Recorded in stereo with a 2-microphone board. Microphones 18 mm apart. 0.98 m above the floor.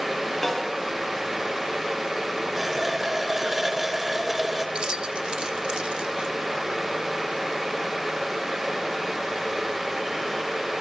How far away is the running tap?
About 2.5 m.